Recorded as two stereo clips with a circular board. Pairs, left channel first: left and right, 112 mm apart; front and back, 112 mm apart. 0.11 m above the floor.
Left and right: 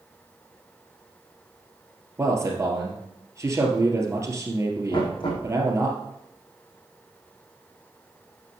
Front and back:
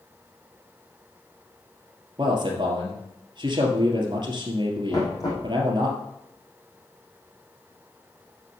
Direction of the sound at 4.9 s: 55° left.